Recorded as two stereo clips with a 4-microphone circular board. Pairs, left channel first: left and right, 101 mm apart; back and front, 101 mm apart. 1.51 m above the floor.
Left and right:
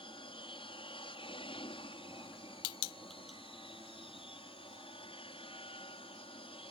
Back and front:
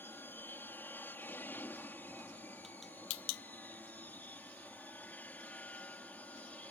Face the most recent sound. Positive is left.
turn(degrees=105)